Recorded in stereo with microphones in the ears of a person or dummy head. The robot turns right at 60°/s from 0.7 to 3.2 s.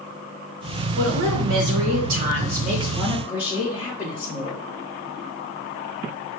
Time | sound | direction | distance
0.9 | a woman speaking | 120° right | 1.0 m